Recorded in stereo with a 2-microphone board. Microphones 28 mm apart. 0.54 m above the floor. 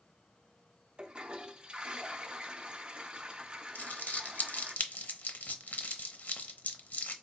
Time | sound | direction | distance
1.0 | a toilet flushing | 30° right (ahead or behind) | 0.5 m
3.8 | crumpling | 75° left (ahead or behind) | 0.6 m